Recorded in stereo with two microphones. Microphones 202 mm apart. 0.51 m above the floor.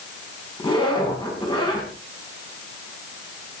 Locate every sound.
0.6 s a zipper: 25° left (ahead or behind), 5 m